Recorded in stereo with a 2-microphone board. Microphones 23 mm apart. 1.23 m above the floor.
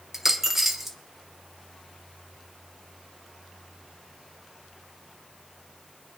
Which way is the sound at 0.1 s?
15° right (ahead or behind).